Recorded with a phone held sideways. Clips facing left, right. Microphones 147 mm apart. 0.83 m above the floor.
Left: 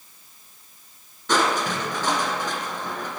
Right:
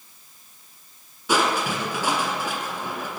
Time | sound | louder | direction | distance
1.3 | crushing | even | 10° right (ahead or behind) | 1.6 m